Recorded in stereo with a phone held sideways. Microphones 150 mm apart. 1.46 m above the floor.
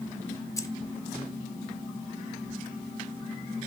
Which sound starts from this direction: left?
Keys jangling, at 0.6 s.